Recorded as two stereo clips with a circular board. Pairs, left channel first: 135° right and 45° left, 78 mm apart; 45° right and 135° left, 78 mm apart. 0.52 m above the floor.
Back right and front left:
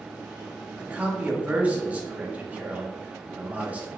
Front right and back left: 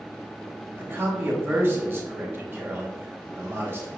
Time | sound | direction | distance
0.8 | a man speaking | 100° left | 1.0 m